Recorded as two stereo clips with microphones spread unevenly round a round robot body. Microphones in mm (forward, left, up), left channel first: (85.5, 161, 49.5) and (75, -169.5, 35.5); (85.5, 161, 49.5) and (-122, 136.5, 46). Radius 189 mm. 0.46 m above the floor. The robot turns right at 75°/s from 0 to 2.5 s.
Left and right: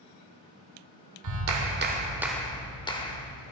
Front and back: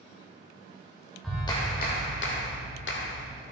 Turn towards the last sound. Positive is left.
turn(degrees=10)